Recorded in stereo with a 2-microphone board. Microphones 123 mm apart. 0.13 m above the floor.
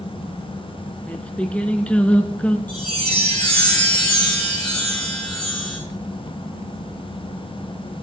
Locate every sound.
1.1 s singing: 10° left (ahead or behind), 0.8 m
2.7 s a chime: 15° left (ahead or behind), 3 m